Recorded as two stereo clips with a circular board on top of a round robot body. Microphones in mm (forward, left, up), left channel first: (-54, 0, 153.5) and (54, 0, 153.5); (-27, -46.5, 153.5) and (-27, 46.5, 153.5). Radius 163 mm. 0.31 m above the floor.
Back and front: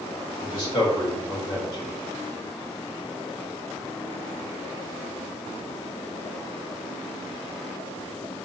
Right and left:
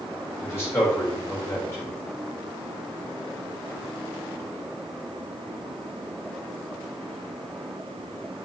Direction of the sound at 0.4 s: 145° right.